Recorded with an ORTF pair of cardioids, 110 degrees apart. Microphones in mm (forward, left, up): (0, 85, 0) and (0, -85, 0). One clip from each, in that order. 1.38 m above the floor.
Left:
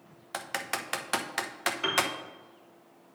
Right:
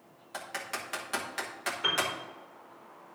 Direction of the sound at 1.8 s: 70° left.